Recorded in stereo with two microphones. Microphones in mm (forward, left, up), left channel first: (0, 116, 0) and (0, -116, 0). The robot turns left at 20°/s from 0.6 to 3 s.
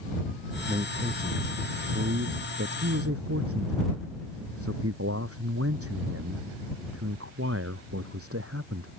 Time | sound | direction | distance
0.7 | a man speaking | 30° right | ?